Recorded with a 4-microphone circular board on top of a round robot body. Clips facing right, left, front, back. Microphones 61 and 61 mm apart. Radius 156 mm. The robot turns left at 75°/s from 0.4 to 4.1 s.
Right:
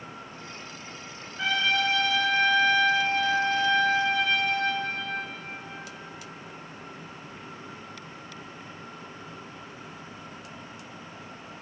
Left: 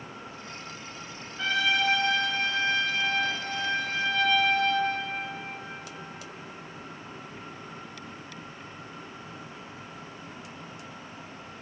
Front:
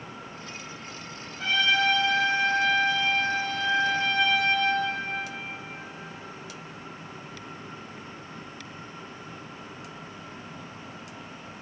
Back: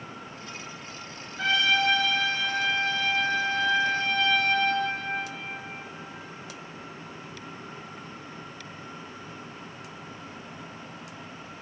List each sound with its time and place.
1.4 s a trumpet: 165° right, 2.5 m; by 4.9 s 10° right, 2.5 m